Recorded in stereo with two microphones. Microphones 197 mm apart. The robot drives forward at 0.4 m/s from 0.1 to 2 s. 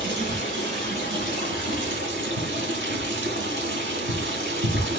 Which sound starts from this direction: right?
Running water, at 0.0 s.